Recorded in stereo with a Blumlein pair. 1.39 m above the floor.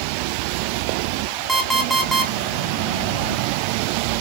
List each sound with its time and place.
1.5 s an alarm clock: 5° right, 1.8 m